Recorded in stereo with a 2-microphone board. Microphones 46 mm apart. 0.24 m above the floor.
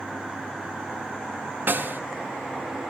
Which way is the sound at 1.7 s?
50° right (ahead or behind).